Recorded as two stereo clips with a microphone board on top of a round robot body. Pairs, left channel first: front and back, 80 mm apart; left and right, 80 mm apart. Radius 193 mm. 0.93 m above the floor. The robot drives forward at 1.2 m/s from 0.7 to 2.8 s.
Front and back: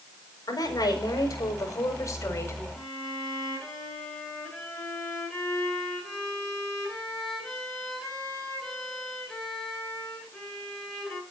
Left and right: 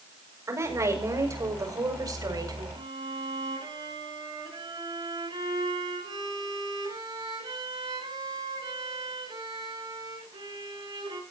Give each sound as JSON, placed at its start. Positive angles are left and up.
{"t": 0.5, "sound": "a woman speaking", "azimuth_deg": -40, "distance_m": 6.0}
{"t": 2.7, "sound": "a violin", "azimuth_deg": -85, "distance_m": 8.5}